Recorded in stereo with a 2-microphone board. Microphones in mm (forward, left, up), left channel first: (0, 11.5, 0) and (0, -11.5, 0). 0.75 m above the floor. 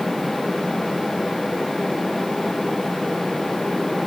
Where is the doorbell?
No doorbell in this recording.